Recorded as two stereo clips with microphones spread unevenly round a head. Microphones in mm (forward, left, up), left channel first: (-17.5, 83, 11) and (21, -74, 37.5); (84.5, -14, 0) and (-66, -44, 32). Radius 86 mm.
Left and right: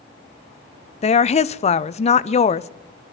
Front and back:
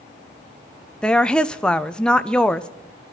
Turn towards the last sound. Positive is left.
turn(degrees=85)